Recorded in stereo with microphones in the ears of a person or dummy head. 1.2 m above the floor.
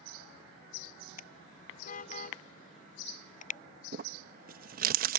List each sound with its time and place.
1.2 s a car horn: 45° left (ahead or behind); by 3.6 s 40° left (ahead or behind)
3.9 s crumpling: 50° right (ahead or behind)